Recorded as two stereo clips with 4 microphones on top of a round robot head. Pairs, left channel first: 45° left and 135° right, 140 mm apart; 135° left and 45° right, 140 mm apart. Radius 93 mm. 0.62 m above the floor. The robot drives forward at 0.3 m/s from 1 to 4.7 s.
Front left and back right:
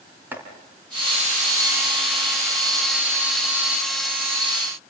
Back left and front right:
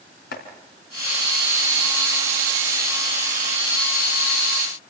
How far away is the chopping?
About 3.5 m.